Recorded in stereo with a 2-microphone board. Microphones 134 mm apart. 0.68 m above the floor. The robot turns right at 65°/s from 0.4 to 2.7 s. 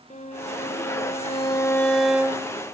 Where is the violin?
75° left, 1.9 m; by 2.5 s 150° right, 1.9 m.